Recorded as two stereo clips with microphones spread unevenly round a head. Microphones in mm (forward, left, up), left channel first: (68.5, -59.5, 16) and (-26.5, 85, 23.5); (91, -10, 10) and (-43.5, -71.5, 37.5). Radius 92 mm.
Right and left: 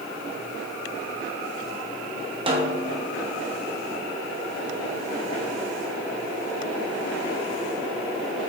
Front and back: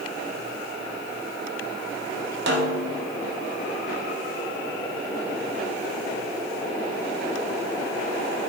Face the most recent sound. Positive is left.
turn(degrees=-175)